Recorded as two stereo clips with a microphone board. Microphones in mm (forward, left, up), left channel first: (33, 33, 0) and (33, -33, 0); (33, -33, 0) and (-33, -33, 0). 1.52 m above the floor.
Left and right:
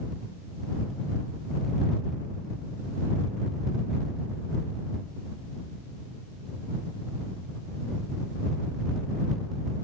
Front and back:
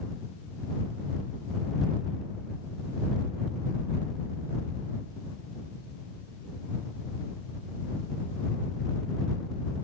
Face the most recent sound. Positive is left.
No sound to turn to.